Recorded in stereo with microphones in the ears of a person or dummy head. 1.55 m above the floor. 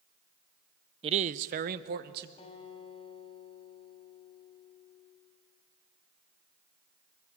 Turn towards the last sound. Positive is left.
turn(degrees=35)  # may be behind; listen again after turning